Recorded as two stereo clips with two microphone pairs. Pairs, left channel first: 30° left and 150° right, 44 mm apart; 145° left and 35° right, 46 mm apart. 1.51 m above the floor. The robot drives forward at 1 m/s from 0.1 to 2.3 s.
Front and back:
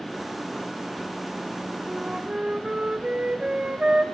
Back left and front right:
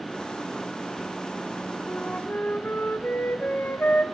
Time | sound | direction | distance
1.9 | a flute | 135° left | 1.4 m